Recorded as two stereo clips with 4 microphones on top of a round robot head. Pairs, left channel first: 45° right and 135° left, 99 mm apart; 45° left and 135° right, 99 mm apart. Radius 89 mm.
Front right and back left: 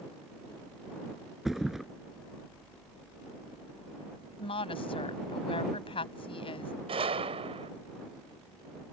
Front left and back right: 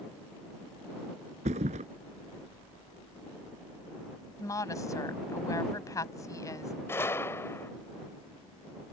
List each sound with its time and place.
1.4 s a thud: 135° right
4.4 s a woman speaking: 10° right
6.9 s a gunshot: 110° left